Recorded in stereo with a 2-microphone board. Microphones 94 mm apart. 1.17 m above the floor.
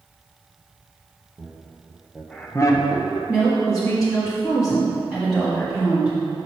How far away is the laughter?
About 1.5 m.